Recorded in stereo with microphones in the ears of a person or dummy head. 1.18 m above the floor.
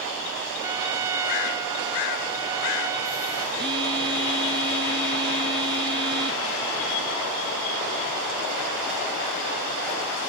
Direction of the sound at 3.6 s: 25° right (ahead or behind).